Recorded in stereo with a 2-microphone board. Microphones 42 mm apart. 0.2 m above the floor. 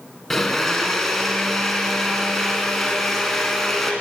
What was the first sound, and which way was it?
A blender, 5° left (ahead or behind).